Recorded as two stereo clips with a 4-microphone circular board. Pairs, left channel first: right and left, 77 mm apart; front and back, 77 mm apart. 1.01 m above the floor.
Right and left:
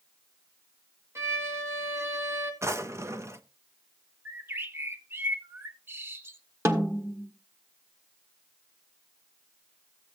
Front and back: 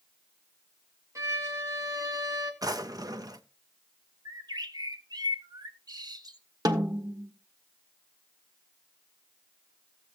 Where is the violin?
140° left, 1.6 m.